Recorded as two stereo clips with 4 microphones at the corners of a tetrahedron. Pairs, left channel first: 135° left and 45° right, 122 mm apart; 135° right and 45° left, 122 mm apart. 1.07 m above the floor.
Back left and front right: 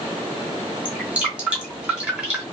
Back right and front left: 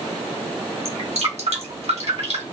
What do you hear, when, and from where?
0.8 s dripping: 35° left, 2 m